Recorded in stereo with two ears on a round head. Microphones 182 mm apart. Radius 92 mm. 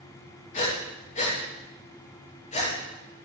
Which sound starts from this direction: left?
Breathing, at 0.5 s.